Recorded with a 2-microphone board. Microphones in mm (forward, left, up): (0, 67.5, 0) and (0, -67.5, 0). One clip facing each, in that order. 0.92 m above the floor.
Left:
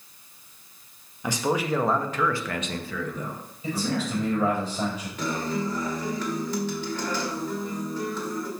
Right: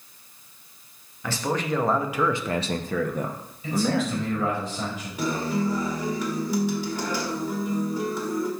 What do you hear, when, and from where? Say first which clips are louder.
1.2 s a man speaking: left 2 dB; 15° left (ahead or behind), 0.9 m; by 4.6 s 75° right (ahead or behind), 1.3 m
3.6 s a man speaking: right 4 dB; 30° left (ahead or behind), 4 m
5.2 s a guitar: right 3 dB; 10° right (ahead or behind), 1.3 m